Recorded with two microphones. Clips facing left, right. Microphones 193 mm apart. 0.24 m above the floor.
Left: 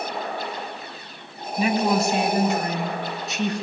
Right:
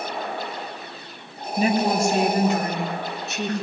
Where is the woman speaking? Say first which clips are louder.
Even; 35° right (ahead or behind), 1.8 m; by 3.6 s 65° right (ahead or behind), 3.5 m.